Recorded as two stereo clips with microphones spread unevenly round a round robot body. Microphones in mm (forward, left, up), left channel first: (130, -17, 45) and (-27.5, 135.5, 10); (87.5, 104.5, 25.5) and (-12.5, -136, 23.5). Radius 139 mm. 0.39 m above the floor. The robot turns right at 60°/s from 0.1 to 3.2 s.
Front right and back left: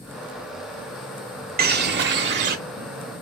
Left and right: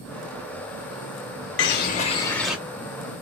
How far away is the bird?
About 0.7 m.